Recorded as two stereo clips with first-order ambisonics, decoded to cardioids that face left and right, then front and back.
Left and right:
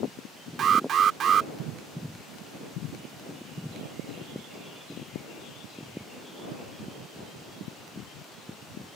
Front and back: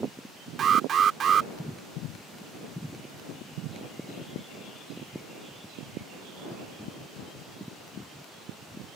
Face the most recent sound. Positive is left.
turn(degrees=-130)